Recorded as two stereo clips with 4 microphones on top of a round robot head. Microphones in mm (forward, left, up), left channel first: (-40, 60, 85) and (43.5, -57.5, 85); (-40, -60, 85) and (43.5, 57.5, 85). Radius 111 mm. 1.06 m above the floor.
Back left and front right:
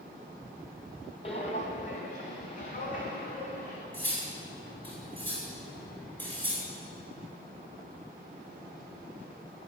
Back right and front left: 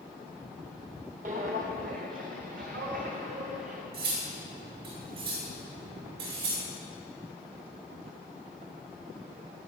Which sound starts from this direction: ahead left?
Cutlery clinking, at 3.9 s.